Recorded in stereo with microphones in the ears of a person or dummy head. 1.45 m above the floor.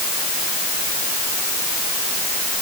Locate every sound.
Only background noise.